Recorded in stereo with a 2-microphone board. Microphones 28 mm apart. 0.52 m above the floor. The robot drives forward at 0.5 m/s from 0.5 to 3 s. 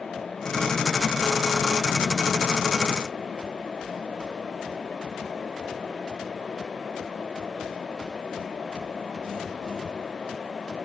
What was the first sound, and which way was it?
Only background noise.